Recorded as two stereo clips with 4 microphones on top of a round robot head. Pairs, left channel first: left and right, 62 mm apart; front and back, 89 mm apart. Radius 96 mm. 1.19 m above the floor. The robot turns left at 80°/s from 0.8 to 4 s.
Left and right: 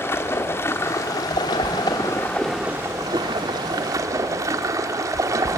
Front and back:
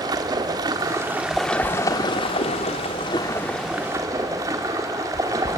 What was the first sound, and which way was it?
Running water, 135° left.